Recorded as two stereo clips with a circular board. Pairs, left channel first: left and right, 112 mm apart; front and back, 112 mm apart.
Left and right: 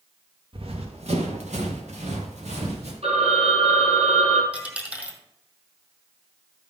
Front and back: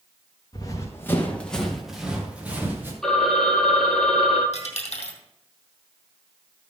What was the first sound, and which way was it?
Running footsteps, 55° right.